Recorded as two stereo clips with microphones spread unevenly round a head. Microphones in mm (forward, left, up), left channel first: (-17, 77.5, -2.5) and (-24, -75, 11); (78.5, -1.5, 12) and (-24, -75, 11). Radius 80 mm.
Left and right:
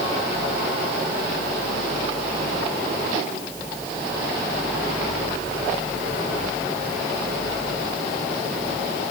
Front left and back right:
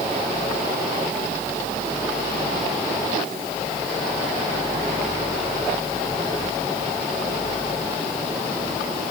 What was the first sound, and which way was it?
Only background noise.